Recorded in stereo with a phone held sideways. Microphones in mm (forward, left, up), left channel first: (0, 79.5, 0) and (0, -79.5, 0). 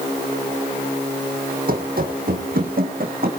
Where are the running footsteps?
65° right (ahead or behind), 3 m; by 3.3 s 70° right (ahead or behind), 3.5 m.